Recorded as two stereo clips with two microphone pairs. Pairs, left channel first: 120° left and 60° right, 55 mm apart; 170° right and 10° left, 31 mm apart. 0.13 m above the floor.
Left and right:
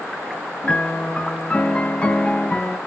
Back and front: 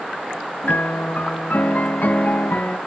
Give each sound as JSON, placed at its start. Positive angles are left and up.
{"t": 0.6, "sound": "a piano", "azimuth_deg": -170, "distance_m": 0.5}